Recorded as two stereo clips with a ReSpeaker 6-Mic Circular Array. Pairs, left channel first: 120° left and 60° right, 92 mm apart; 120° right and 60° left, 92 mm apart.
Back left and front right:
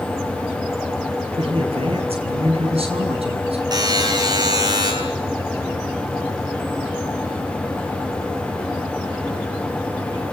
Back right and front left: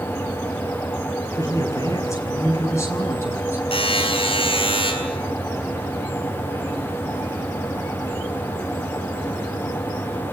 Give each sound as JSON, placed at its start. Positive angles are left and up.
{"t": 1.4, "sound": "a man speaking", "azimuth_deg": -65, "distance_m": 8.5}
{"t": 3.7, "sound": "a buzzer", "azimuth_deg": -105, "distance_m": 8.5}